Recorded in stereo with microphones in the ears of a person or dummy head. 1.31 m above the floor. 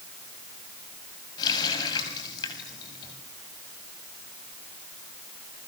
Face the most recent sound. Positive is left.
turn(degrees=25)  # may be behind; listen again after turning